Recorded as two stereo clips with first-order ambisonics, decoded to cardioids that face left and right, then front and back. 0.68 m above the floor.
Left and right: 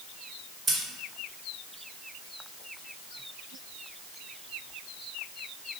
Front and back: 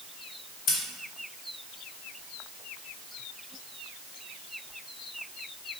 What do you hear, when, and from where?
0.7 s scissors: 30° right, 0.7 m